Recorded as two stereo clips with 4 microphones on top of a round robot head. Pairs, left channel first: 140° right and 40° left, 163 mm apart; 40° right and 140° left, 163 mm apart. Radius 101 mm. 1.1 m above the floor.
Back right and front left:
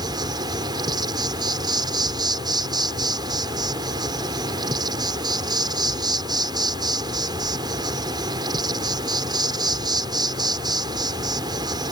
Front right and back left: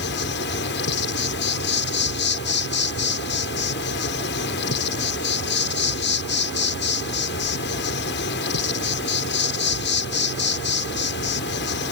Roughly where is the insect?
Ahead right.